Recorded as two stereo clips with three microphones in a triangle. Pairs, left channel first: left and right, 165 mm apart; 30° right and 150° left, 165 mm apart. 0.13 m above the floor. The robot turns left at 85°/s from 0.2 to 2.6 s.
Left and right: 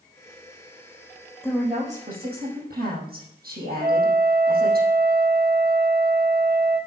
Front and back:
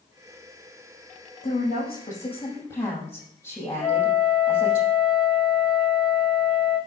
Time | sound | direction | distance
1.4 | a woman speaking | straight ahead | 5.5 m
3.8 | a flute | 85° right | 2.5 m